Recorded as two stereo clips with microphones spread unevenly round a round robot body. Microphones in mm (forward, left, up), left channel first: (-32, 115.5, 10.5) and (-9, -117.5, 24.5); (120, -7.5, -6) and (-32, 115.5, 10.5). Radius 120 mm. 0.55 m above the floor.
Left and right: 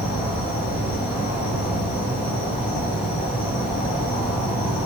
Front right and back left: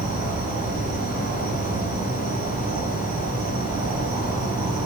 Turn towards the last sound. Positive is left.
turn(degrees=150)